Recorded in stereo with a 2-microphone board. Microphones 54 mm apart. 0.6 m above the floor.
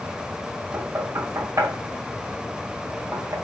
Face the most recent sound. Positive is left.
turn(degrees=-70)  # may be behind; listen again after turning